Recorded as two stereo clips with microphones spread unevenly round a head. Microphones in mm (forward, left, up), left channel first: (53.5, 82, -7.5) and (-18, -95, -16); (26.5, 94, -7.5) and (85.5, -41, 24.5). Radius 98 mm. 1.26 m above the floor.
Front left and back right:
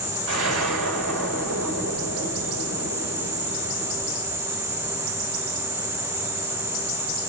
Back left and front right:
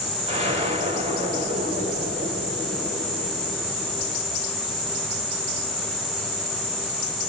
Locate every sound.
0.3 s an explosion: 135° right, 5 m